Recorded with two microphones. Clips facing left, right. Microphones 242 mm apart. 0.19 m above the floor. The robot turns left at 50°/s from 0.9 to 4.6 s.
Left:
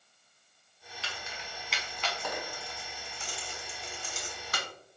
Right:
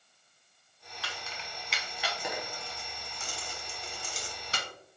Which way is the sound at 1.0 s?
25° left (ahead or behind).